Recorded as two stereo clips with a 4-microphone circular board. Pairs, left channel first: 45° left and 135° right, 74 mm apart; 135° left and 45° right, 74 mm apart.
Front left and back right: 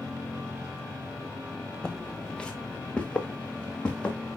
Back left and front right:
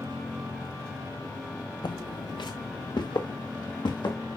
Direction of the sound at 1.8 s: 125° left.